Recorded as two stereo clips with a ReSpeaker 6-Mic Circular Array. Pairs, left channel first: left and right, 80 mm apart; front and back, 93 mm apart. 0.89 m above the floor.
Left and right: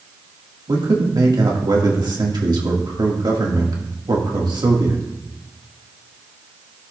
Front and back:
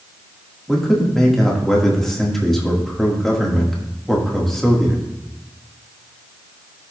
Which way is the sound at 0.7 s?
85° right.